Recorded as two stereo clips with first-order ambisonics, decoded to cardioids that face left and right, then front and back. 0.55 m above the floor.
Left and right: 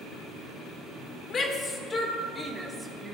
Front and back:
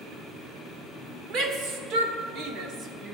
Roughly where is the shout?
Behind left.